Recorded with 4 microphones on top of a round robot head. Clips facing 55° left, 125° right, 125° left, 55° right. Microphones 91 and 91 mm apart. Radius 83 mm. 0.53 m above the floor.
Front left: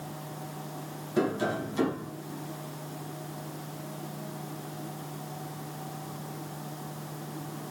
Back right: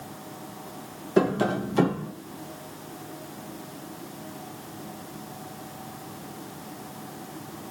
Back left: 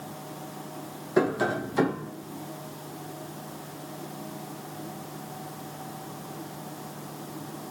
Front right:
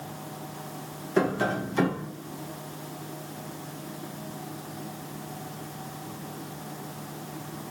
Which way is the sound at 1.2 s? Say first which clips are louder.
Back right 5 dB, back left 1 dB; 150° right.